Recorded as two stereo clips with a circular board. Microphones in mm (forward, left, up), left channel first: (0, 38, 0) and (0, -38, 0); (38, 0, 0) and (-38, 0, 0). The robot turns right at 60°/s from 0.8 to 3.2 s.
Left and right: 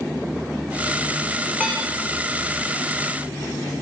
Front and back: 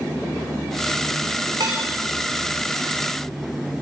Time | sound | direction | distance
1.6 | dishes clattering | 160° right | 7.5 m